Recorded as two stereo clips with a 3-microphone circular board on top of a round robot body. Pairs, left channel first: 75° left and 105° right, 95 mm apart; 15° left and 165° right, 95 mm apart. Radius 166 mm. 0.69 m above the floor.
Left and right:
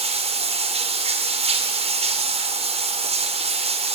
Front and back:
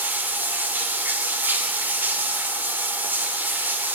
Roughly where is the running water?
Right.